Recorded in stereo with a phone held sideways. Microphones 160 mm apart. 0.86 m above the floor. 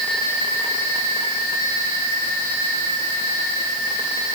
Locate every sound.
Only background noise.